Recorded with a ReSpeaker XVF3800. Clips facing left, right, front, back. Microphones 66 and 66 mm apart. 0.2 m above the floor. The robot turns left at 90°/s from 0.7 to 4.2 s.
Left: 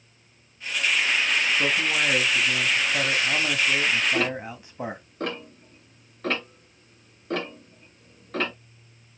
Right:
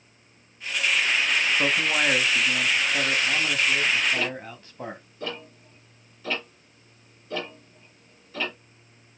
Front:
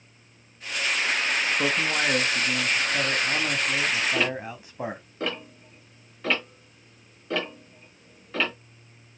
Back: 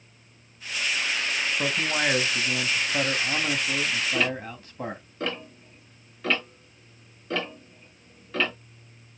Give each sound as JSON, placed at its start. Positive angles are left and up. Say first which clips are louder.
{"t": 1.6, "sound": "a man speaking", "louder": "right 1 dB, back 1 dB", "azimuth_deg": -70, "distance_m": 1.0}
{"t": 4.1, "sound": "ticking", "louder": "left 3 dB, even", "azimuth_deg": 90, "distance_m": 3.5}